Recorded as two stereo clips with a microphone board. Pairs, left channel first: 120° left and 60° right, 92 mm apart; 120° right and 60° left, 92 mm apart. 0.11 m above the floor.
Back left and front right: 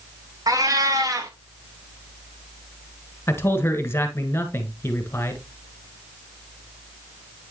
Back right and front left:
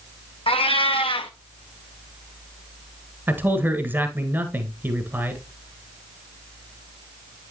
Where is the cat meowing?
110° right, 1.1 m.